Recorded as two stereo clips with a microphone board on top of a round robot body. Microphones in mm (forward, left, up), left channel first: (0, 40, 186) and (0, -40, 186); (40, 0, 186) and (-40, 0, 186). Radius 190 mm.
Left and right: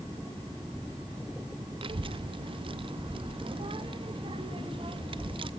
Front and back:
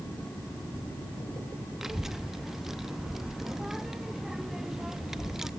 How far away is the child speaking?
About 0.8 m.